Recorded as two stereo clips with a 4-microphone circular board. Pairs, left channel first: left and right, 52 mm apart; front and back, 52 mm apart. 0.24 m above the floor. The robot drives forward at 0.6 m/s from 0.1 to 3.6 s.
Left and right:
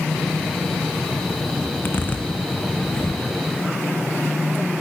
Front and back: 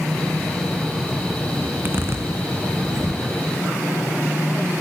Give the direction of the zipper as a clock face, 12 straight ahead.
8 o'clock.